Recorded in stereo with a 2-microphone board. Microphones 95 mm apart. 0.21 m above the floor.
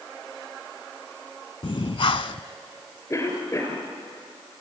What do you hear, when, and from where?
1.6 s breathing: 60° left (ahead or behind), 0.6 m
3.1 s a cough: 30° left (ahead or behind), 3.5 m